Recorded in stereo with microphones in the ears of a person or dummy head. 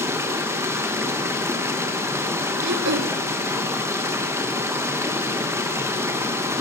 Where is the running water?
5° right (ahead or behind), 1.2 m.